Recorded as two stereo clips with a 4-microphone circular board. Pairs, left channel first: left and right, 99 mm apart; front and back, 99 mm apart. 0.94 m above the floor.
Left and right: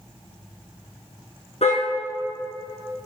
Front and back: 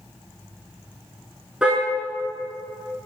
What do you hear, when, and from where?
1.6 s a car horn: 100° left, 5 m